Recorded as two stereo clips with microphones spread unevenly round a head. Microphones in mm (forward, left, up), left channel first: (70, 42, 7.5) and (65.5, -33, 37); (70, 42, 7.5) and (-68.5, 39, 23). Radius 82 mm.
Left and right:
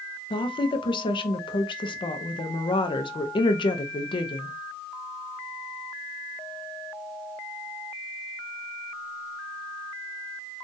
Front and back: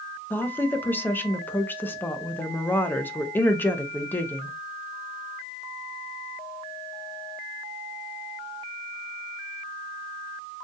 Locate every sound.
0.3 s a woman speaking: 80° left, 0.6 m